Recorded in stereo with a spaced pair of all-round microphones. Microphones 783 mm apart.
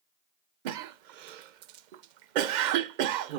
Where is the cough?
70° right (ahead or behind), 0.6 m.